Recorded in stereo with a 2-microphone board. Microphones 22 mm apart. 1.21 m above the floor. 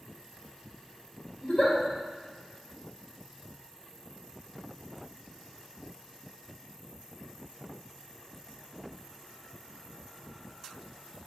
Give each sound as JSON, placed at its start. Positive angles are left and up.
{"t": 1.4, "sound": "a giggle", "side_deg": 65, "distance_m": 1.5}